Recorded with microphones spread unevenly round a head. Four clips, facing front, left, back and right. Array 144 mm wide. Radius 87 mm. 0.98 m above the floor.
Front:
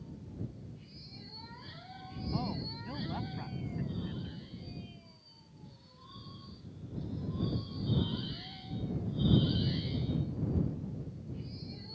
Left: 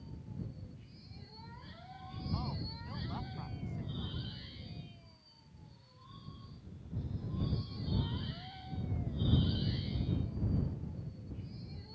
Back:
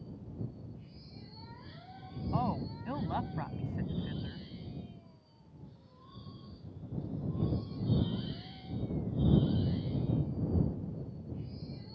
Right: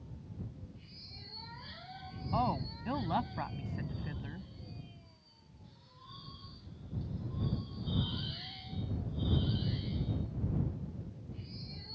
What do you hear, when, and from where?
2.3 s a woman speaking: 110° right